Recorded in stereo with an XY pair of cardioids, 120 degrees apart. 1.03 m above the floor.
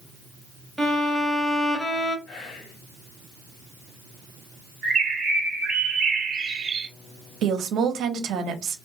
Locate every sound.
0.8 s a violin: 10° left, 0.8 m
2.3 s whispering: 55° left, 1.3 m
4.8 s a bird: 45° right, 0.9 m
7.4 s a woman speaking: 65° right, 0.6 m